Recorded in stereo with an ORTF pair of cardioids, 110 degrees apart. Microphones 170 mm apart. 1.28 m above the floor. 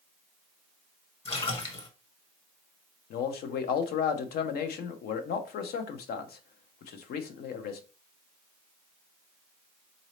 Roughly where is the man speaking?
Ahead left.